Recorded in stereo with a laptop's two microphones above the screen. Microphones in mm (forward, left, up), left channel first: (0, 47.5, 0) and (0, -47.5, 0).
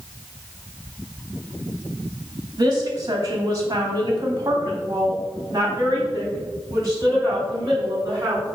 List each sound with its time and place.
2.6 s a woman speaking: 40° right (ahead or behind), 1.9 m; by 8.5 s 35° right (ahead or behind), 5 m